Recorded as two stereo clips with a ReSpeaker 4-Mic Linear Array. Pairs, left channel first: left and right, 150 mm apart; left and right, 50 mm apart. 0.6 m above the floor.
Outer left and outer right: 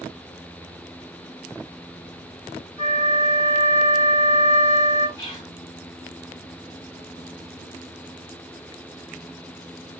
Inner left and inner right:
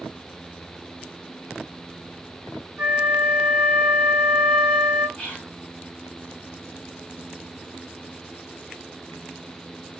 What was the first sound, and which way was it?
A flute, 20° right (ahead or behind).